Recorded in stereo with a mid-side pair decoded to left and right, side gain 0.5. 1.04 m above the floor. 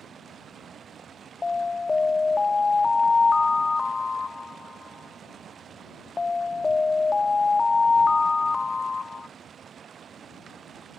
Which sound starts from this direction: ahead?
An alarm, at 1.4 s.